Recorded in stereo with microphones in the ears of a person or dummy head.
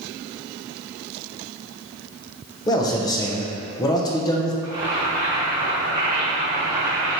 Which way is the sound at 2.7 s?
20° left (ahead or behind).